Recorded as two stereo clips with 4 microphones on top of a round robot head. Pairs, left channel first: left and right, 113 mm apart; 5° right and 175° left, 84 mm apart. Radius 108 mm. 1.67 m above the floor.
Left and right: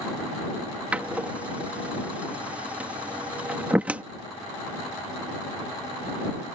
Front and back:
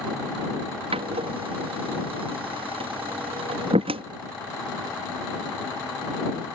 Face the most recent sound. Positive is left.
turn(degrees=-170)